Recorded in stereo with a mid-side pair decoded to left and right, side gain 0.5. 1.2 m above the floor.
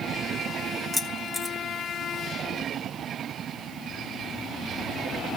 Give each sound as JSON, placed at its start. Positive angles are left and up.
{"t": 0.9, "sound": "keys jangling", "azimuth_deg": 20, "distance_m": 1.9}